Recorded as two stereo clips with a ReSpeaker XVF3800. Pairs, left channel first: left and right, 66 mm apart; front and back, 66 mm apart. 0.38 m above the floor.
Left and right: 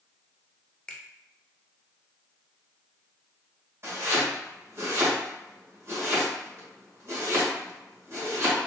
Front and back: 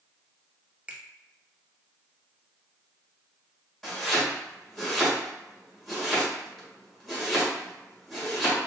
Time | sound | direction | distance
0.9 | a finger snap | 145° left | 0.6 m
3.8 | chopping | 85° right | 1.5 m